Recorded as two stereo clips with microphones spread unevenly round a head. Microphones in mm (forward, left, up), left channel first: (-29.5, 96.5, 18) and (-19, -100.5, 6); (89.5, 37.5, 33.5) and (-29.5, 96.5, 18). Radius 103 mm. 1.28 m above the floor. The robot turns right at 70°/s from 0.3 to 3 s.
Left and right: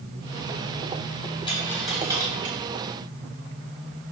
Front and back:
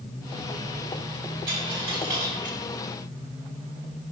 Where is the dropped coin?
155° left, 3 m; by 2.6 s 130° right, 3 m.